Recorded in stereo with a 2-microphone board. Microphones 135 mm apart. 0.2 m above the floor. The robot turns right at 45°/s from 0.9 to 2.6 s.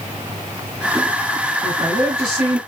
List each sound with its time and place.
1.6 s a woman speaking: 105° right, 2 m; by 2.6 s 60° right, 2 m